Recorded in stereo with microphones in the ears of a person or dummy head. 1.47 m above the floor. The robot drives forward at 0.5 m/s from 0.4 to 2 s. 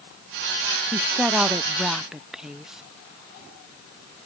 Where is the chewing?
No chewing in this recording.